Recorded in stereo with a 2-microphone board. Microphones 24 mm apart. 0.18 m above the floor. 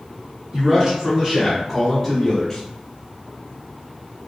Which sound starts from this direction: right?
A man speaking, at 0.5 s.